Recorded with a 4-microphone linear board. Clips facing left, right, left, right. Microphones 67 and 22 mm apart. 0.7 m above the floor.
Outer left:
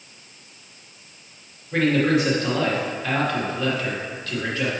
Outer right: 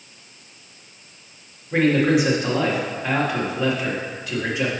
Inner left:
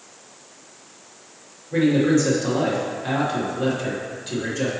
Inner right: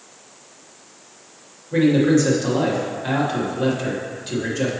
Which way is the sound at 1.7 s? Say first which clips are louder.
Outer right 2 dB, inner right 2 dB; 15° right (ahead or behind).